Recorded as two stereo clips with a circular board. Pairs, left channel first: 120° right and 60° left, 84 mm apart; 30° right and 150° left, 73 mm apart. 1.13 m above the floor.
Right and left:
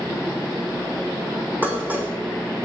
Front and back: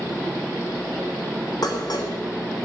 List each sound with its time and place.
1.6 s dishes clattering: 10° right, 2.5 m